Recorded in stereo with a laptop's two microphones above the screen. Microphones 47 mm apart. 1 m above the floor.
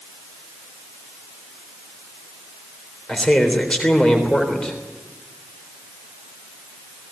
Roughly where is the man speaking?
Centre.